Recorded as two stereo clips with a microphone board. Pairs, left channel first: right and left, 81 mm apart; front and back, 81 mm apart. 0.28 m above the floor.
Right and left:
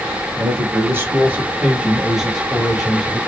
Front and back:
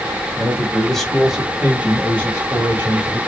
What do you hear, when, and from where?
0.4 s a man speaking: 65° left, 1.1 m; by 3.2 s 170° right, 1.2 m